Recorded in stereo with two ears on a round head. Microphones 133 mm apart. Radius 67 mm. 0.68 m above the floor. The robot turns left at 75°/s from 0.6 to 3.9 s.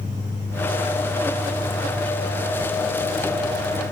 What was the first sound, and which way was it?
Only background noise.